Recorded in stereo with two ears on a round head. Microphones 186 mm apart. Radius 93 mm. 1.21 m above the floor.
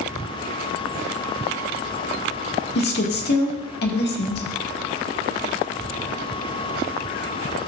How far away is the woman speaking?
About 1.6 m.